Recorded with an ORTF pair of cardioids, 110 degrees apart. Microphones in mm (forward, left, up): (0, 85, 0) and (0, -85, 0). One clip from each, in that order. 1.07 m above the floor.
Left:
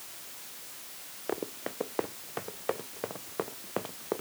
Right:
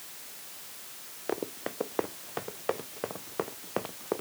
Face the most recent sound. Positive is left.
turn(degrees=-10)